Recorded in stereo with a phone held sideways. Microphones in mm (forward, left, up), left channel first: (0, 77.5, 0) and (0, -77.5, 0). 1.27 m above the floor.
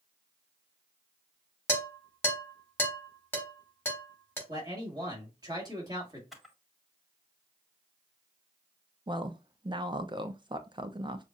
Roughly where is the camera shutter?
Centre.